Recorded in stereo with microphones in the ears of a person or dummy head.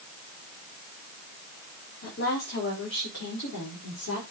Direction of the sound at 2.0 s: 55° left (ahead or behind).